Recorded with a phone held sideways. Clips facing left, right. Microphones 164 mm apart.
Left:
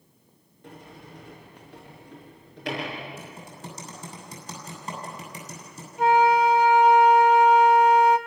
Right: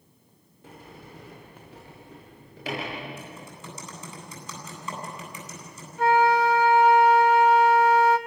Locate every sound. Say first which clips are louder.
0.6 s a sliding door: left 1 dB; centre (ahead or behind), 6.5 m
3.2 s typing on a keyboard: left 1 dB; 40° left (ahead or behind), 8.5 m
6.0 s a flute: left 1 dB; 15° left (ahead or behind), 1.3 m